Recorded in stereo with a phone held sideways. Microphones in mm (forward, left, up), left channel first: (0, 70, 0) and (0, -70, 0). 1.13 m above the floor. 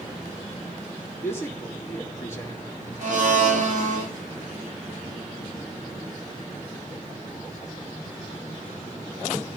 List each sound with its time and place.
1.2 s a man speaking: 15° left (ahead or behind), 1.8 m
3.0 s a blender: 60° right (ahead or behind), 3 m